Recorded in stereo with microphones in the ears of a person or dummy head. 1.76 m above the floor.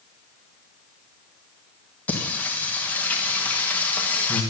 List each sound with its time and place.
2.1 s singing: 10° left (ahead or behind), 1.6 m